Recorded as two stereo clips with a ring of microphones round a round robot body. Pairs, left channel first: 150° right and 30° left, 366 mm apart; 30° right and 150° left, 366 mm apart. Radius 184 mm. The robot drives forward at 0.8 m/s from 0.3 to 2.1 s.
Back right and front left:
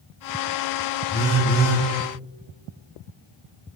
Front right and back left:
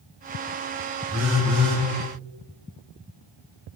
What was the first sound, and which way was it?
A phone buzzing, straight behind.